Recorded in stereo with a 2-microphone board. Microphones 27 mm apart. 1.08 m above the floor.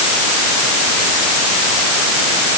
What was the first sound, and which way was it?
Only background noise.